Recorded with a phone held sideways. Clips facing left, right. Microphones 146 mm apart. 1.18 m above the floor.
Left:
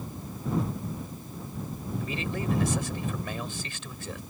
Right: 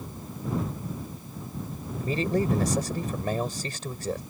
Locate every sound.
2.0 s a man speaking: 40° right (ahead or behind)